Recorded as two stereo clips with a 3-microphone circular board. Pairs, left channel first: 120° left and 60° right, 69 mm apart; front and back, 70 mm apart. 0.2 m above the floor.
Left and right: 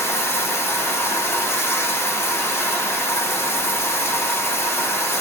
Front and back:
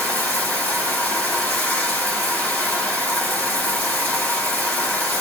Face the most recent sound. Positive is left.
turn(degrees=65)